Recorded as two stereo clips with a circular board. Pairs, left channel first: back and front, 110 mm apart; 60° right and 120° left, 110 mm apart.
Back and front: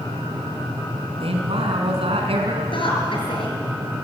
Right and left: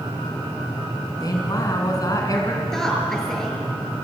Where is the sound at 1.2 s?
10° right, 4.5 m.